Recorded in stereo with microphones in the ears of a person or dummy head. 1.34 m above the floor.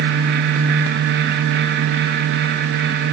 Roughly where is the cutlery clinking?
No cutlery clinking in this recording.